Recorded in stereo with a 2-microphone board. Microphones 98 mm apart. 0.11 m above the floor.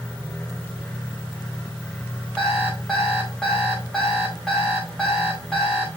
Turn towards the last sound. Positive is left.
turn(degrees=0)  # may be behind; listen again after turning